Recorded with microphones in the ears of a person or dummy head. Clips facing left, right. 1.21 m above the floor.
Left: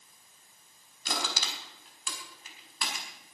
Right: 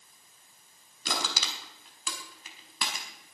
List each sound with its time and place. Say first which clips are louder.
1.1 s crushing: right 1 dB; 75° right (ahead or behind), 4 m